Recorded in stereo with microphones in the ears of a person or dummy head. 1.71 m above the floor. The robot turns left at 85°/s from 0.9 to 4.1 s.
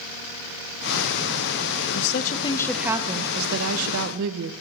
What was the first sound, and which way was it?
A woman speaking, 70° left.